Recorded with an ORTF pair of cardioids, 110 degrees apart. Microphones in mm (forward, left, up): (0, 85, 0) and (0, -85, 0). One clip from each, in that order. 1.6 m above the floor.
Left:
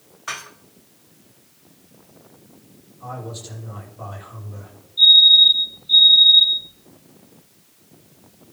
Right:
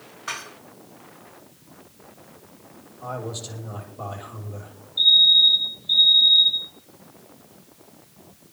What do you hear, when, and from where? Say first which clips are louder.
0.3 s dishes clattering: left 1 dB; 10° left, 2.5 m
3.0 s a man speaking: right 2 dB; 25° right, 5.5 m
5.0 s a fire alarm: left 4 dB; 25° right, 4.5 m